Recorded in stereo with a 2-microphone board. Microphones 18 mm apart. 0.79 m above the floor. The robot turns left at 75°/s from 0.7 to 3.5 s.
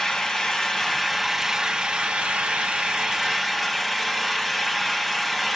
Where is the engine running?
35° left, 1.2 m; by 5.6 s 175° right, 1.2 m.